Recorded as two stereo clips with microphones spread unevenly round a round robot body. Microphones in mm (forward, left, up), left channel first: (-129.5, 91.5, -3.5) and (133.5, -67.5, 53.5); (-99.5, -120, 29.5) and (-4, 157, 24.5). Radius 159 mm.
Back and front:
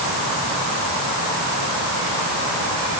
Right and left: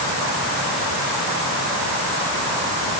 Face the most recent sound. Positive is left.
No sound to turn to.